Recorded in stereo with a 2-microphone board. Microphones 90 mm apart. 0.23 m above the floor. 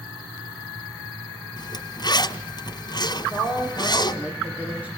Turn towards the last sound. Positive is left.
turn(degrees=-15)  # may be behind; listen again after turning